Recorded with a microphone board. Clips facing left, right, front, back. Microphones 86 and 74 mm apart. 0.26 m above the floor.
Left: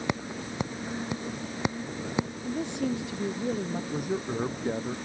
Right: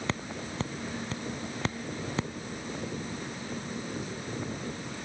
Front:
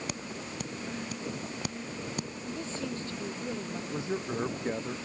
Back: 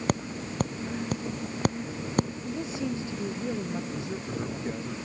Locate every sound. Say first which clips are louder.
0.1 s tapping: left 4 dB, back 8 dB; 160° left
2.5 s a woman speaking: left 7 dB, back 4 dB; 100° left
3.9 s a man speaking: left 6 dB, front 1 dB; 60° left